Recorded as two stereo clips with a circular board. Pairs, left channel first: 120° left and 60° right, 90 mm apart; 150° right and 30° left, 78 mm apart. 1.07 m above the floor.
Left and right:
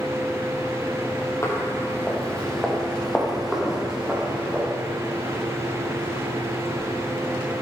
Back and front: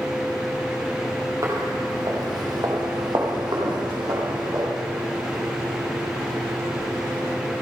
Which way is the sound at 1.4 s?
70° left.